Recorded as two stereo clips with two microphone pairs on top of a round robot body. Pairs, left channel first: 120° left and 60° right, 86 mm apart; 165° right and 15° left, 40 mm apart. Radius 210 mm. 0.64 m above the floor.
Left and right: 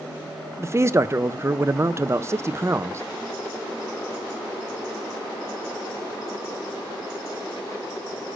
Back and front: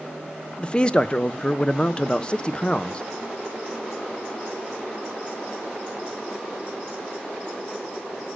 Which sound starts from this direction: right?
A man speaking, at 0.6 s.